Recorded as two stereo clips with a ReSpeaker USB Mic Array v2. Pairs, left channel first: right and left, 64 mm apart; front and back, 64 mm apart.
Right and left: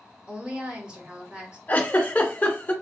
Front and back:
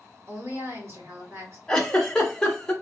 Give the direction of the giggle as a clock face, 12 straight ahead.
2 o'clock.